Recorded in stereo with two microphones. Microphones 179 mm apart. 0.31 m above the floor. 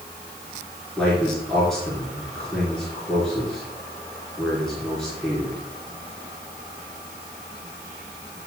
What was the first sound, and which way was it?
A man speaking, 5° left (ahead or behind).